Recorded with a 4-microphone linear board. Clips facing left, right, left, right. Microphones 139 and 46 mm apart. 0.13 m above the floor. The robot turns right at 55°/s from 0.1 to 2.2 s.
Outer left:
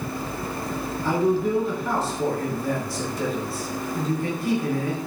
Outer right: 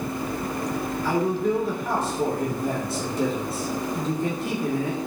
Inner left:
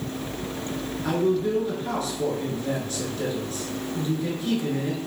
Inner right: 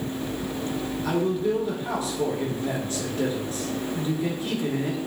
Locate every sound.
1.0 s a man speaking: 150° left, 1.5 m; by 5.0 s 150° right, 1.5 m